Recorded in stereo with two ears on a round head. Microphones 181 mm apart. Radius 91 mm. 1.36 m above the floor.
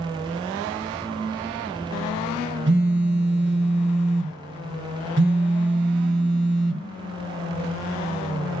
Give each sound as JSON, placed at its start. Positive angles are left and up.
{"t": 2.7, "sound": "a phone buzzing", "side_deg": -55, "distance_m": 1.8}